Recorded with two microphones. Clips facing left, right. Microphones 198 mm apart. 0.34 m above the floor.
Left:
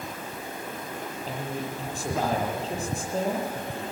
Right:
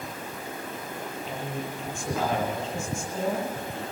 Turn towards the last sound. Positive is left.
turn(degrees=35)  # may be behind; listen again after turning